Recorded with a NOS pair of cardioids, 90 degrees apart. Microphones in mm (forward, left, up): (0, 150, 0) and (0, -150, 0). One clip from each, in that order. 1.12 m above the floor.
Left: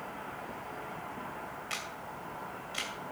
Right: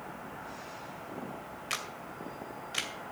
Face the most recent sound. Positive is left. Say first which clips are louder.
# right 4 dB
turn(degrees=-35)